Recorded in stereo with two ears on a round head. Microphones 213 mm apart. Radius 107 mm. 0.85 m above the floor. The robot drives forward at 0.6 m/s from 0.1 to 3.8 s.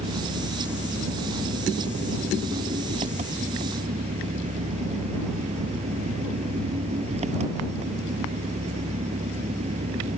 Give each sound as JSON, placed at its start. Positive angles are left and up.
{"t": 0.0, "sound": "an engine running", "side_deg": -25}